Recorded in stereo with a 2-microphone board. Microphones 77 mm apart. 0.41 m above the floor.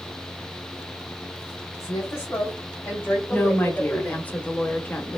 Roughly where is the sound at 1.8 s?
Left.